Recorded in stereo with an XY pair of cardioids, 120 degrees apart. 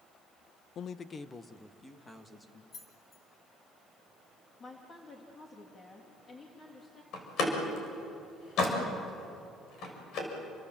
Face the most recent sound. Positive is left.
turn(degrees=65)